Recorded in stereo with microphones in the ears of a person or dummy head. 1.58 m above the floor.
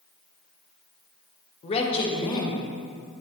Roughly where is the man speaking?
Left.